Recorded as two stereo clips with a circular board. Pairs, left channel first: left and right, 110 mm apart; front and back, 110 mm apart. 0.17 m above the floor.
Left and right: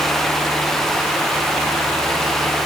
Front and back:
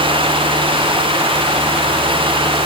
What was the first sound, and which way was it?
Only background noise.